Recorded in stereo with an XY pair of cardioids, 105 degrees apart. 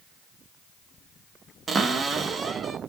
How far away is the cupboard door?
About 0.7 m.